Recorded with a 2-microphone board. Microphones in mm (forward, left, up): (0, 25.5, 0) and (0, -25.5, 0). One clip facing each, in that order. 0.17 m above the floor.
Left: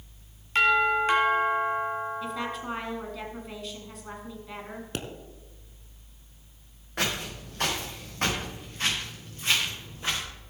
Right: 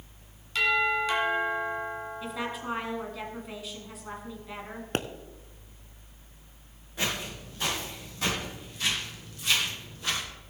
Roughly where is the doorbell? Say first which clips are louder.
Left 3 dB; left.